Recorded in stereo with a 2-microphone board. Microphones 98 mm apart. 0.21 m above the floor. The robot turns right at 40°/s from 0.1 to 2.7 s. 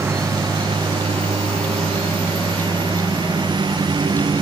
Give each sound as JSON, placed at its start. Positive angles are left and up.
{"t": 0.0, "sound": "a lawn mower", "azimuth_deg": -155}